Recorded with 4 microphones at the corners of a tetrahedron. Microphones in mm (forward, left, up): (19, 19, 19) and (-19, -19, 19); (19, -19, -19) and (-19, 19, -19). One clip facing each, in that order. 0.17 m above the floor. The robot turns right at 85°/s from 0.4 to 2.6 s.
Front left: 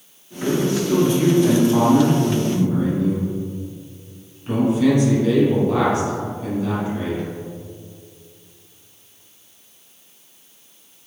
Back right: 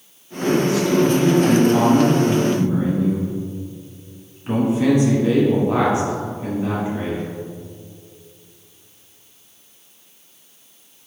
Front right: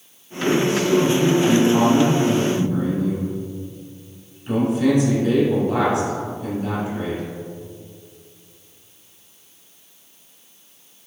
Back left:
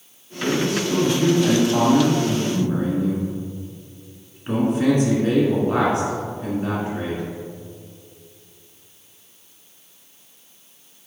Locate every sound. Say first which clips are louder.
0.4 s a man speaking: back right 2 dB, front right 3 dB; 20° right, 1.6 m; by 7.2 s 165° left, 1.6 m